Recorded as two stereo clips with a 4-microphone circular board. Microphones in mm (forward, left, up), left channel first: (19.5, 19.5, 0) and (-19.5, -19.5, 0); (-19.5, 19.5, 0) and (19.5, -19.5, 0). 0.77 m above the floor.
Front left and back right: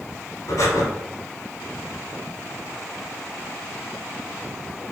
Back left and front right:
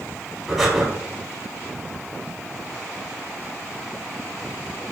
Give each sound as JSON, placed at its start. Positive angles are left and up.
{"t": 0.5, "sound": "breathing", "azimuth_deg": 40, "distance_m": 1.4}